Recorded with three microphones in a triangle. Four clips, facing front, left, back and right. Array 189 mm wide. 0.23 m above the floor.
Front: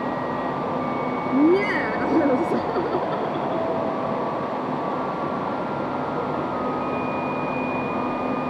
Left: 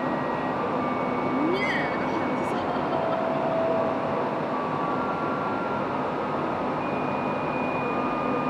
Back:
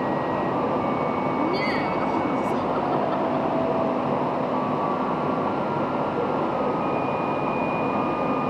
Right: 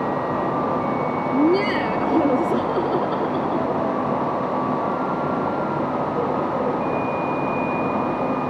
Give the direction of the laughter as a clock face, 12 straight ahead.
1 o'clock.